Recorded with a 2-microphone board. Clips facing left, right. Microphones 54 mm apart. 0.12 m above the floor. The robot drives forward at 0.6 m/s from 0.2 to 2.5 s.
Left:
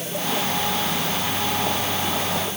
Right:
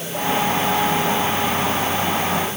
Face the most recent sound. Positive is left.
No sound to turn to.